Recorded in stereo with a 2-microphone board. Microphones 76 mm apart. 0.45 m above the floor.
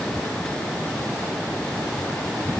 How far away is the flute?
I don't hear a flute.